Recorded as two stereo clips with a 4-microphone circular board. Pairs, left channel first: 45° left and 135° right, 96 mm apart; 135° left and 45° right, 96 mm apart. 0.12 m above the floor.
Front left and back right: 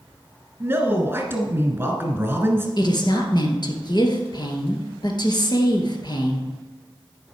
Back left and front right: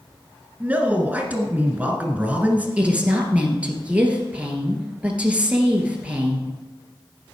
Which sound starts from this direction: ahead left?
A woman speaking, at 2.8 s.